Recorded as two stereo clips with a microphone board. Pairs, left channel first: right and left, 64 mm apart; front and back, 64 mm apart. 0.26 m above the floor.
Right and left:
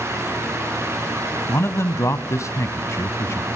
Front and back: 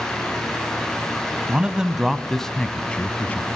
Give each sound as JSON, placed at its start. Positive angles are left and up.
{"t": 1.5, "sound": "a man speaking", "azimuth_deg": -115, "distance_m": 1.4}